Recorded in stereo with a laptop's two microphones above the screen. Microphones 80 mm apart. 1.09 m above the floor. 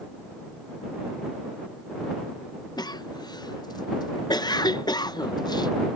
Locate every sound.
2.8 s a cough: 65° left (ahead or behind)